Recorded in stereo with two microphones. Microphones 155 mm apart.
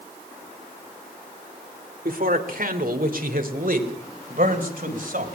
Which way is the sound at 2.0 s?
65° right (ahead or behind).